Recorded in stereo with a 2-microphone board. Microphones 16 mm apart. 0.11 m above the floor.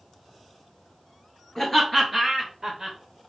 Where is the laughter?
25° left (ahead or behind), 1.5 m; by 3.0 s 30° right (ahead or behind), 1.8 m.